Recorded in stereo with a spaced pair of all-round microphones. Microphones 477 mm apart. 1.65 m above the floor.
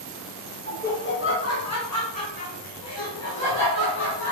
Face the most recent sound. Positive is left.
turn(degrees=75)  # may be behind; listen again after turning